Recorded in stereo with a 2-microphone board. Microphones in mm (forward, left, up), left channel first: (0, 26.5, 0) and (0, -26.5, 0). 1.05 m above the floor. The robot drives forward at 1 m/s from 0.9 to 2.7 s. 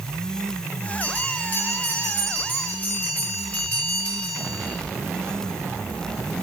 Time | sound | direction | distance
1.0 | a bell | 30° left (ahead or behind) | 8 m